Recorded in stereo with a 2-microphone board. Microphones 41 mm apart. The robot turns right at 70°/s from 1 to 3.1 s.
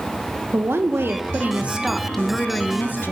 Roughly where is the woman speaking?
Right.